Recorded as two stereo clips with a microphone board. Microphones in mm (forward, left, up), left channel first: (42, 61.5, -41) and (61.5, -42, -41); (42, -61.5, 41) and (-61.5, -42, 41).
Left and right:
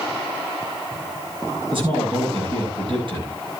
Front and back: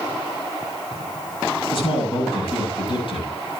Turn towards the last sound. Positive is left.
turn(degrees=-45)